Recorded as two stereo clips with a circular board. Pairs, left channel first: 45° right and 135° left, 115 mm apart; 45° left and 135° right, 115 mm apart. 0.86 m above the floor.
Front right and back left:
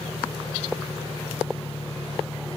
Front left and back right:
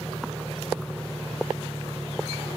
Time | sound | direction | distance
0.0 | an engine running | 60° right | ?